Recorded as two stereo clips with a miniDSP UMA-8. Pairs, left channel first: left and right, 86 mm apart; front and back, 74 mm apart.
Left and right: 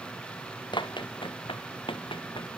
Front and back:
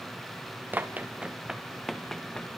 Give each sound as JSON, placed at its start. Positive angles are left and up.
{"t": 0.7, "sound": "running footsteps", "azimuth_deg": 115, "distance_m": 1.8}